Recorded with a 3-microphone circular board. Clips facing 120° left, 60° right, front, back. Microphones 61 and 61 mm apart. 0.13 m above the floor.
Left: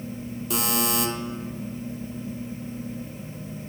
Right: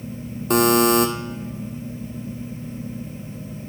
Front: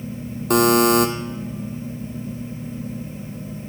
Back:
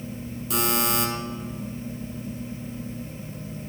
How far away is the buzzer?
About 0.9 m.